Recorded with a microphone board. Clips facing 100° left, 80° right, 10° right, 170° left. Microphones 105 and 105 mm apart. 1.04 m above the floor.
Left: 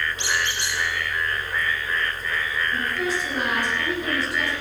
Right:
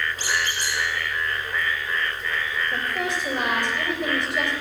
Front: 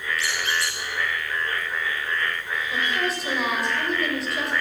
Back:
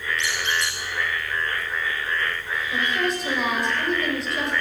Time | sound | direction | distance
0.2 | a squeak | 125° right | 6 m
2.7 | a woman speaking | 100° right | 4 m